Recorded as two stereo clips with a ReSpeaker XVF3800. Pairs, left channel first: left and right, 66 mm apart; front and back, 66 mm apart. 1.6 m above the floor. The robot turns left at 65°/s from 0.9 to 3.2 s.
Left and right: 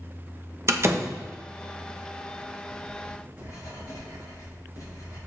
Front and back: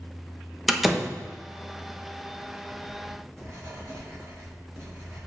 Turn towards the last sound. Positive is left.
turn(degrees=130)